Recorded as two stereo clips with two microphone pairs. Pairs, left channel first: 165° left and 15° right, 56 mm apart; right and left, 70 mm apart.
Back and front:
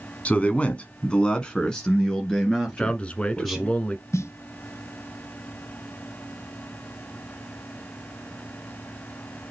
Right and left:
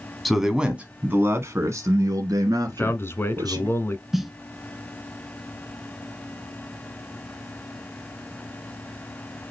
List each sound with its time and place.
0.2 s a man speaking: straight behind, 1.3 m; by 3.7 s 80° left, 3 m
2.7 s a man speaking: 135° right, 1.3 m
4.1 s a snare drum: 175° left, 0.7 m